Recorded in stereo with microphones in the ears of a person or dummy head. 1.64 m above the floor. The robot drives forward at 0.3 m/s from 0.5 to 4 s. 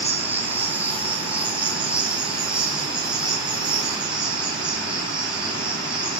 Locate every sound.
0.0 s an insect: 10° right (ahead or behind), 0.9 m; by 6.2 s 5° right (ahead or behind), 1.9 m